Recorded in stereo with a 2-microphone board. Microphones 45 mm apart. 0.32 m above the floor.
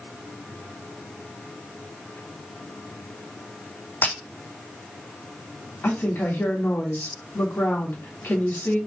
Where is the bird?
I don't hear a bird.